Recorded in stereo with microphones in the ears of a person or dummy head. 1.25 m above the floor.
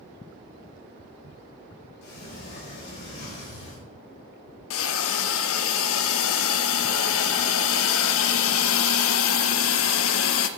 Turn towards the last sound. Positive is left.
turn(degrees=85)